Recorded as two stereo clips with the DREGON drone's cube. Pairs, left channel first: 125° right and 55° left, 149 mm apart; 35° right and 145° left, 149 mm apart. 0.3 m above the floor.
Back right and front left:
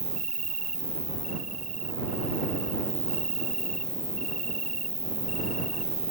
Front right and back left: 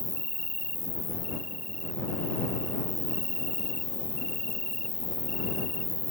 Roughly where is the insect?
Left.